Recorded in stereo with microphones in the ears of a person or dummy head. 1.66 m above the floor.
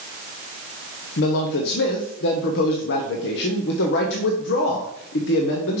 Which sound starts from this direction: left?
A man speaking, at 1.2 s.